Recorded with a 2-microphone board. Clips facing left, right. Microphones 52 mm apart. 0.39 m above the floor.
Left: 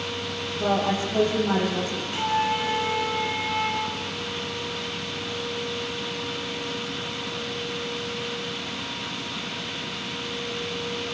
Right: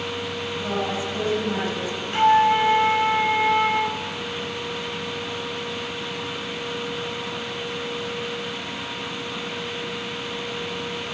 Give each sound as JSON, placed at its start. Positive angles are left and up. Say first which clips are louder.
{"t": 0.6, "sound": "a woman speaking", "louder": "left 4 dB", "side_deg": 60, "distance_m": 10.0}
{"t": 2.1, "sound": "a flute", "louder": "right 9 dB", "side_deg": -40, "distance_m": 1.6}